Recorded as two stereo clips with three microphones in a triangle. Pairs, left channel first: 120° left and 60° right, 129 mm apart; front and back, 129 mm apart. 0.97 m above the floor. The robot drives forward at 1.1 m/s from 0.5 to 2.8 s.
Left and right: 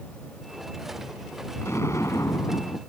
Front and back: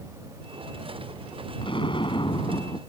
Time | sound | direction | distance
1.6 | an explosion | 50° left | ?